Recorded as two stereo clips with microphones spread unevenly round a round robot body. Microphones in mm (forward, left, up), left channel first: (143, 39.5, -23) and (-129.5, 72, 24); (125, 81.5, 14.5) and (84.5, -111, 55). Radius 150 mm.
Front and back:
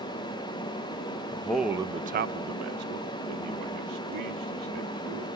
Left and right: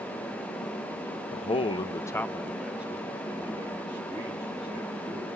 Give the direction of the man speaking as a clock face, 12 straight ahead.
10 o'clock.